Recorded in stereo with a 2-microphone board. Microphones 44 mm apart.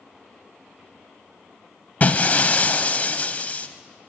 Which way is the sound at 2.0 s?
35° left (ahead or behind).